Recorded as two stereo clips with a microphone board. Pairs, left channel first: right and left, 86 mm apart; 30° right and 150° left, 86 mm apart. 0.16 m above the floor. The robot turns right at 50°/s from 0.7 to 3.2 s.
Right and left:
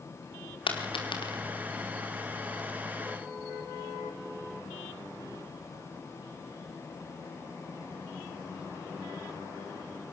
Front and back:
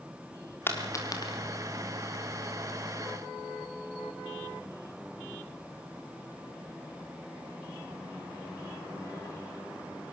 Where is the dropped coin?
95° right, 4 m; by 1.4 s 60° right, 4 m.